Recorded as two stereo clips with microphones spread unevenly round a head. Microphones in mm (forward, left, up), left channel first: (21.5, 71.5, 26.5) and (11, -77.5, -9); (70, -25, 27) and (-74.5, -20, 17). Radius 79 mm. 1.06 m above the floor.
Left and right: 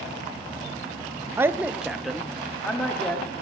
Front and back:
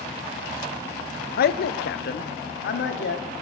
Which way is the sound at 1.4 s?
25° right.